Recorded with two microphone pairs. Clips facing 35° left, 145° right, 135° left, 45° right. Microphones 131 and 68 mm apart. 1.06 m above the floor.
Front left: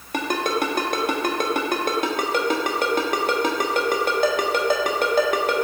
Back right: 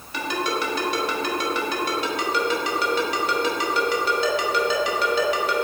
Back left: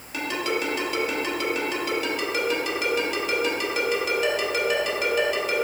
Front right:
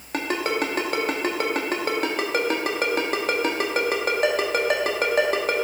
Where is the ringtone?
5° right, 1.0 m.